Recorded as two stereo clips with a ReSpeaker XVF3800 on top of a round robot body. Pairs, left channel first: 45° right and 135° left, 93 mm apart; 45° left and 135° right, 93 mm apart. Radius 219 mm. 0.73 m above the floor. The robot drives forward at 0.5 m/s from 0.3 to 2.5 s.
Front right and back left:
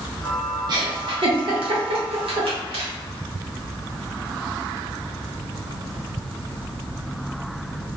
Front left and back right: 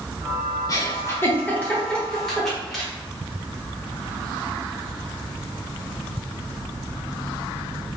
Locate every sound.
0.7 s a giggle: 95° left, 1.0 m; by 2.9 s 135° left, 1.4 m